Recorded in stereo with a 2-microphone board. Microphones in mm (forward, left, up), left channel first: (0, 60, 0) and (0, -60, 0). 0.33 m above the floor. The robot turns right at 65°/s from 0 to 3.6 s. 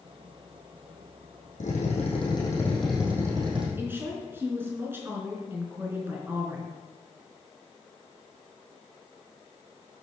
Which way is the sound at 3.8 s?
20° right (ahead or behind).